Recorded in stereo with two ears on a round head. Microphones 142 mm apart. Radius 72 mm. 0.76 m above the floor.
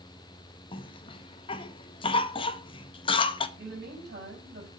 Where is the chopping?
I don't hear chopping.